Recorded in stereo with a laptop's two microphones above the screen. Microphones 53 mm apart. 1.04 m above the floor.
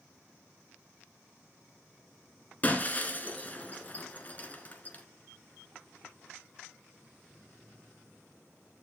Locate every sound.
2.6 s breaking glass: 30° left (ahead or behind), 1.6 m